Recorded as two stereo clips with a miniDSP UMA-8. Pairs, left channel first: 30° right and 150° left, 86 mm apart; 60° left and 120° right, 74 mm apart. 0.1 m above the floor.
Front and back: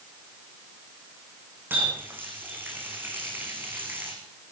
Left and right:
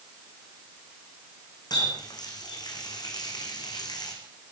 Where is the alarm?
No alarm in this recording.